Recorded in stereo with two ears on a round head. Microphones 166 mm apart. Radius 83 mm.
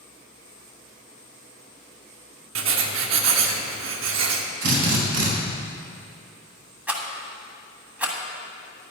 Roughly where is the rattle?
Centre.